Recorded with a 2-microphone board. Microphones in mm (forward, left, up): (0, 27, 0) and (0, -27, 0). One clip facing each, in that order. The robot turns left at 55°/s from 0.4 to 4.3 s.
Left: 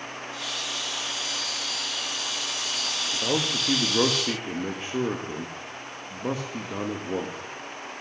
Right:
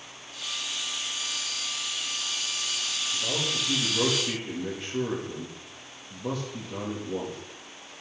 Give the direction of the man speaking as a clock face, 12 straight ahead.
9 o'clock.